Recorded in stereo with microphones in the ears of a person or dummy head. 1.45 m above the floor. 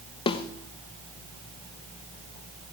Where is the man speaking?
I don't hear a man speaking.